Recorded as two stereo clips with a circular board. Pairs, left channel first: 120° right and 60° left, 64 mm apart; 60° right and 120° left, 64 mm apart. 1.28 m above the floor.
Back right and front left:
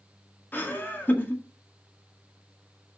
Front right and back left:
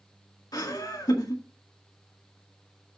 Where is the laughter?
60° right, 2.0 m.